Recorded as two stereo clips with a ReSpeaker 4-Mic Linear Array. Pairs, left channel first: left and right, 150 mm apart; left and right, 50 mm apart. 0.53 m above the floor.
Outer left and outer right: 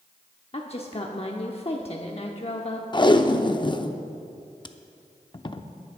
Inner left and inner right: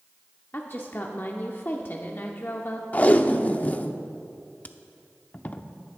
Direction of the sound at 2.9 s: 30° left (ahead or behind).